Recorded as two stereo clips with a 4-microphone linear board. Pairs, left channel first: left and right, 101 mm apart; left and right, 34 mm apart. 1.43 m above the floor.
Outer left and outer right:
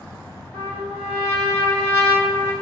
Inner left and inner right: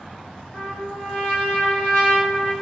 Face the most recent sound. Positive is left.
turn(degrees=20)  # may be behind; listen again after turning